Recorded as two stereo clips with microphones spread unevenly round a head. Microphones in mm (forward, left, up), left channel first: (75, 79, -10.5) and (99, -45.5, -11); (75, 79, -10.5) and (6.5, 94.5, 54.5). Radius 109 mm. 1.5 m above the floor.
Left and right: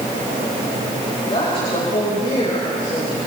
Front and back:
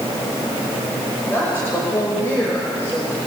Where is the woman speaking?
60° left, 6 m; by 3.2 s 50° left, 6 m.